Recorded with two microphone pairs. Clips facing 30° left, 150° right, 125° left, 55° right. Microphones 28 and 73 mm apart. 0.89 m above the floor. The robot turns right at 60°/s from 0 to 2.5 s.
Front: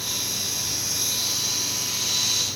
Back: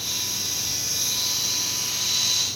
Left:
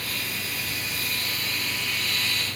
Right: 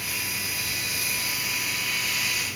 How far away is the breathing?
No breathing in this recording.